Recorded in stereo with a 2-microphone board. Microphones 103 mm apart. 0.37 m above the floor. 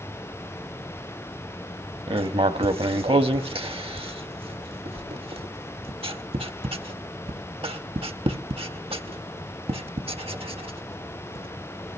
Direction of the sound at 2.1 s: 65° right (ahead or behind).